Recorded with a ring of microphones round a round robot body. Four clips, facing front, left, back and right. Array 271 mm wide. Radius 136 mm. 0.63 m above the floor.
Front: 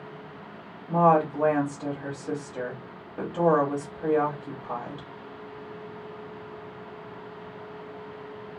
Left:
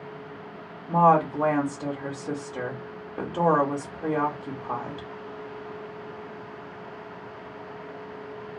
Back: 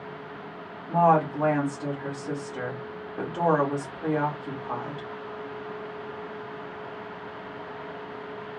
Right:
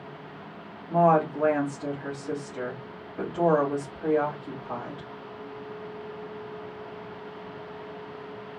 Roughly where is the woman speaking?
Left.